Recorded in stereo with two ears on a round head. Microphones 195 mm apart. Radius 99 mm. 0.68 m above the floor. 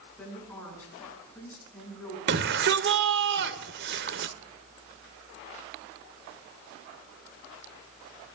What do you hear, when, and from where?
0.2 s a woman speaking: 10° left (ahead or behind), 8.5 m
2.3 s a shout: 55° right (ahead or behind), 1.9 m